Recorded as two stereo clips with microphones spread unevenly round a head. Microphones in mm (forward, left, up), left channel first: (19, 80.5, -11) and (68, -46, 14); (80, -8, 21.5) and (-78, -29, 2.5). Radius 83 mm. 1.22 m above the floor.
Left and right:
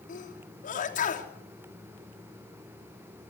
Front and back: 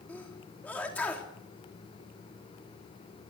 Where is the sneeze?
90° left, 3.5 m.